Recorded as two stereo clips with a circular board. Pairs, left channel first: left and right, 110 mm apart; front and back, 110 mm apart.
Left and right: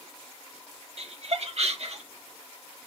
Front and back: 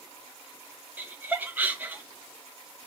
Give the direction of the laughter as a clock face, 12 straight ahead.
4 o'clock.